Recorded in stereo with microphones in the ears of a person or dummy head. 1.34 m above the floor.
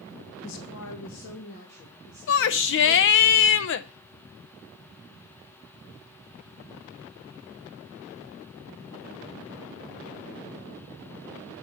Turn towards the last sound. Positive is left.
turn(degrees=65)  # may be behind; listen again after turning